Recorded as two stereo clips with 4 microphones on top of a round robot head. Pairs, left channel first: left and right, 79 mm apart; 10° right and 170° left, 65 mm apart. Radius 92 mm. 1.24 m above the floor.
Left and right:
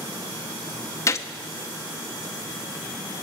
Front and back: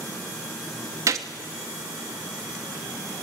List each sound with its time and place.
1.1 s a gunshot: 140° left, 0.8 m